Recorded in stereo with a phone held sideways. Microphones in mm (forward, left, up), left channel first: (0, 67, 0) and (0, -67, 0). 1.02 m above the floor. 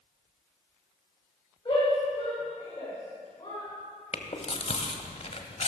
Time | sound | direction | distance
1.6 | a shout | 30° left (ahead or behind) | 6.5 m
4.1 | chewing | 55° left (ahead or behind) | 1.4 m